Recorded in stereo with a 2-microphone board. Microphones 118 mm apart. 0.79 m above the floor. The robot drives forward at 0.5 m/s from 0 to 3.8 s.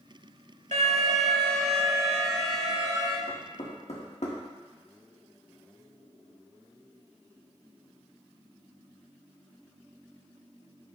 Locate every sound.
0.7 s an alarm: 75° right (ahead or behind), 1.0 m; by 3.2 s 40° right (ahead or behind), 1.6 m
3.3 s knocking: 65° left (ahead or behind), 1.6 m; by 4.4 s 70° left (ahead or behind), 1.5 m